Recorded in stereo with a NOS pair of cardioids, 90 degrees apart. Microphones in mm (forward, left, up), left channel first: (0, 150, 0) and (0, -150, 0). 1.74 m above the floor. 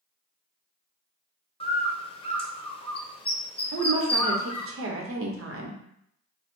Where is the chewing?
I don't hear chewing.